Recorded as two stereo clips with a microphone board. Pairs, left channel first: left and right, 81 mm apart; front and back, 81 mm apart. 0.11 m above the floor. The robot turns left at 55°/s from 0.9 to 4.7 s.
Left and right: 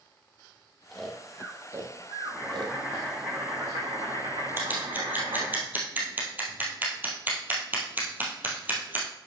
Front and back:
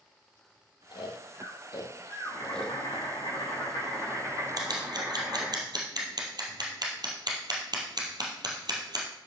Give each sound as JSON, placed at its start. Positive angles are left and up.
{"t": 0.9, "sound": "snoring", "azimuth_deg": 10, "distance_m": 1.5}
{"t": 2.2, "sound": "boiling", "azimuth_deg": 30, "distance_m": 5.0}
{"t": 4.6, "sound": "scissors", "azimuth_deg": -150, "distance_m": 2.0}